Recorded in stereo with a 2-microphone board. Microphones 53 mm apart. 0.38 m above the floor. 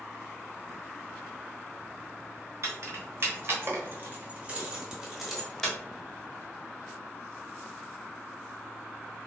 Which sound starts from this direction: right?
Keys jangling, at 2.6 s.